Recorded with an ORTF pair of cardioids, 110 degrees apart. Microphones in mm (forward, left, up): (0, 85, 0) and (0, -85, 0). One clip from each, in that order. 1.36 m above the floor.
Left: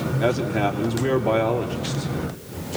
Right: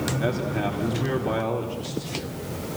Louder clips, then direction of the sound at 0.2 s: Left 8 dB; 25° left.